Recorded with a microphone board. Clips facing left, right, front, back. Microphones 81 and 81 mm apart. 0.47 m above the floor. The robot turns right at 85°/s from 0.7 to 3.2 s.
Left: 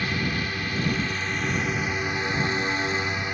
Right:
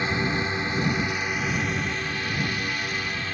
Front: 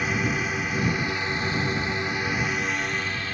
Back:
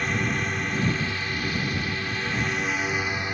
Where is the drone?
75° right; by 3.3 s 135° left.